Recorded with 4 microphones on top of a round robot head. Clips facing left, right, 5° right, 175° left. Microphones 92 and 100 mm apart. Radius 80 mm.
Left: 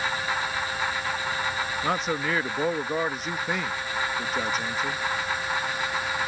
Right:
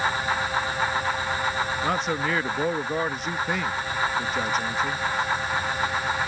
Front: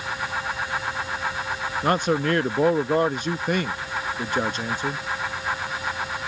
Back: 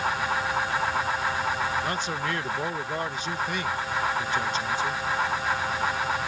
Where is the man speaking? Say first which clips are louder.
Left 1 dB, front 7 dB; straight ahead.